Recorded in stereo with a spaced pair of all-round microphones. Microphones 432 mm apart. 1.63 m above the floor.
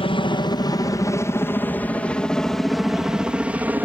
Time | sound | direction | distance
0.0 | a helicopter | 10° left (ahead or behind) | ?